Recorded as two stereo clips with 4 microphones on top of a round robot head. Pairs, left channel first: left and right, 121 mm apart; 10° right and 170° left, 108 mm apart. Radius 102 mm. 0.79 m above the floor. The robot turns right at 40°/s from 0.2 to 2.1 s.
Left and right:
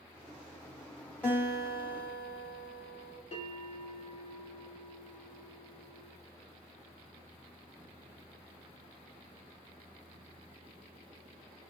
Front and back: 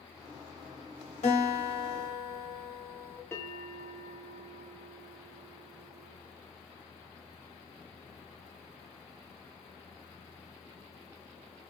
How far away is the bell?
About 2 m.